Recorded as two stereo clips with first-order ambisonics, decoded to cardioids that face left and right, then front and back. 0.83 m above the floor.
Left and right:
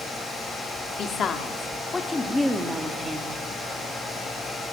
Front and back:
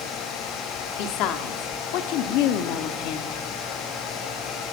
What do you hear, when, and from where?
1.0 s a woman speaking: 30° left, 2 m; by 3.4 s 25° right, 1.7 m